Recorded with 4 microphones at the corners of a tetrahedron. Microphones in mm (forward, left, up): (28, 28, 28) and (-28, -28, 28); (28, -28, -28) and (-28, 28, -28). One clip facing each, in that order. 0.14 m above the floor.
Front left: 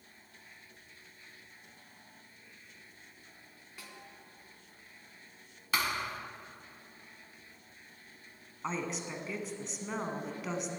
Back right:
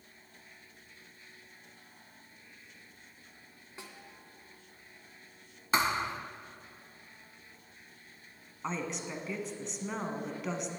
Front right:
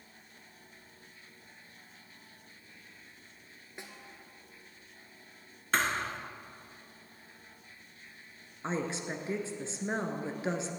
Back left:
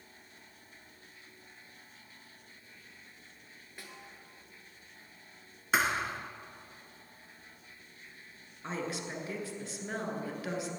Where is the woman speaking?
40° right, 1.3 m.